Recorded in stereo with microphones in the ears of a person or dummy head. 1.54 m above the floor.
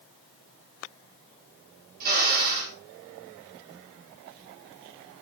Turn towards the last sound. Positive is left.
turn(degrees=-55)  # may be behind; listen again after turning